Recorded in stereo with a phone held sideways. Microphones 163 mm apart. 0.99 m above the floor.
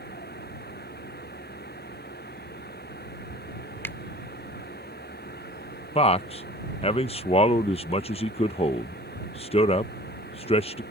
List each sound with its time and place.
0.0 s a fan: 85° left
3.8 s a finger snap: 15° left (ahead or behind)
6.0 s a man speaking: 40° left (ahead or behind)